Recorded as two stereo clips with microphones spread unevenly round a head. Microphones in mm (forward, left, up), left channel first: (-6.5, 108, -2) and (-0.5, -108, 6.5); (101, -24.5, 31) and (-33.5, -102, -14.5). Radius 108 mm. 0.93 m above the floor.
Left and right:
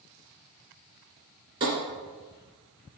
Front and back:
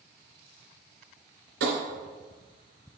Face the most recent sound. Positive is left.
turn(degrees=-155)